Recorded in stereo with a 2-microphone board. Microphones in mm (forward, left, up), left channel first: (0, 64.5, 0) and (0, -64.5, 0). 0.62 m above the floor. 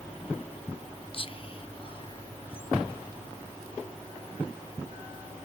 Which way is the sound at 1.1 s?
40° left (ahead or behind).